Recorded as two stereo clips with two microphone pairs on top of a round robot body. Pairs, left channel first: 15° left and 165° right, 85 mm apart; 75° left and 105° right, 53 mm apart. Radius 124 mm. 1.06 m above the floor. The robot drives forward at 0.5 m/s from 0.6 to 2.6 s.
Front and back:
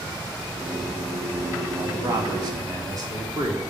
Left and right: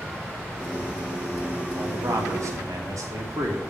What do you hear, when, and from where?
1.8 s a man speaking: 115° right, 2.5 m; by 3.6 s 120° right, 2.5 m